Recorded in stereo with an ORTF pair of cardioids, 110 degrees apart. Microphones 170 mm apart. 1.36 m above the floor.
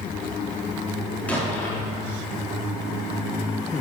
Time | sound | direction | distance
1.3 | an explosion | 10° left | 3.5 m